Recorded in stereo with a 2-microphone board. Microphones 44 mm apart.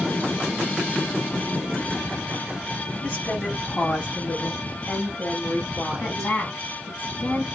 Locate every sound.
3.0 s a woman speaking: 40° left (ahead or behind), 1.6 m; by 6.3 s 5° left (ahead or behind), 1.5 m
6.0 s a woman speaking: 45° left (ahead or behind), 1.5 m